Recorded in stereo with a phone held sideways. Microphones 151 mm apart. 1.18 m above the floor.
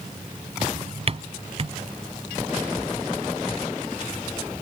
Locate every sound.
0.6 s a drawer: 40° right (ahead or behind)